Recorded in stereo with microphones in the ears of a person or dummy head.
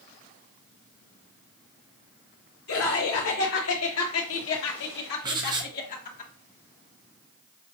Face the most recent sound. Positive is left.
turn(degrees=-20)  # may be behind; listen again after turning